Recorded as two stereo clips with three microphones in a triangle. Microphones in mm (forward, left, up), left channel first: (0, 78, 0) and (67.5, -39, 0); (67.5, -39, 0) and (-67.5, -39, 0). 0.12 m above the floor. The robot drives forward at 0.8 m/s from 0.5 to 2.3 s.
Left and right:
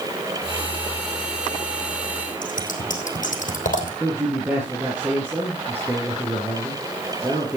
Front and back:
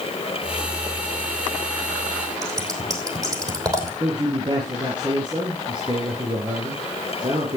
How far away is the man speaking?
About 2.5 m.